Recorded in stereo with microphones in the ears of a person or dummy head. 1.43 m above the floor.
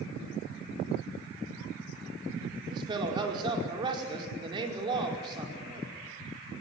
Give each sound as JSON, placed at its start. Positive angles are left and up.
{"t": 2.7, "sound": "a man speaking", "side_deg": -25, "distance_m": 5.0}